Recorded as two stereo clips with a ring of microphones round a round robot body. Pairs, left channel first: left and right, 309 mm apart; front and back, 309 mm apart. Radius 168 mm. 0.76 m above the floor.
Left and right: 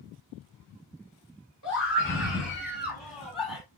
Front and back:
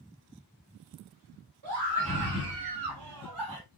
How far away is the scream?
About 3 m.